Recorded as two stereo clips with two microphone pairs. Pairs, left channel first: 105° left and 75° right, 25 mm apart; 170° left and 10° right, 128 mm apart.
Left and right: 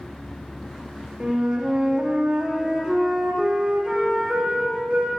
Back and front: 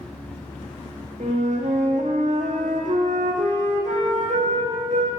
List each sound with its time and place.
1.2 s a flute: 20° right, 1.5 m